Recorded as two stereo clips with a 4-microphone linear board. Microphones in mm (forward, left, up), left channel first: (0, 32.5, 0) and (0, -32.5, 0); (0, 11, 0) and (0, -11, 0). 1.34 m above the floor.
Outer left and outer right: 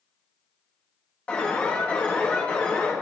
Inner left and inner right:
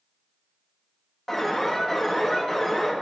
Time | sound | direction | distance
1.3 | an alarm | 20° left (ahead or behind) | 3 m